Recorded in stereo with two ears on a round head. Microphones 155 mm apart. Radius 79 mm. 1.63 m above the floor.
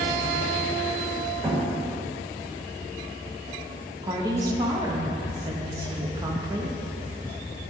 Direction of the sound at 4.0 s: 20° right (ahead or behind).